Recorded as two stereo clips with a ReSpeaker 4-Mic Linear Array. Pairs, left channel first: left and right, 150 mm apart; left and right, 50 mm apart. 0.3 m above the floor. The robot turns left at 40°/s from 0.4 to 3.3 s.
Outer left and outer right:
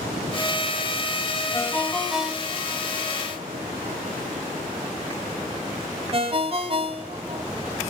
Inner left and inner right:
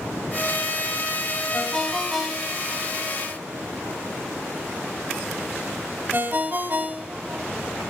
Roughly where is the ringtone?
Left.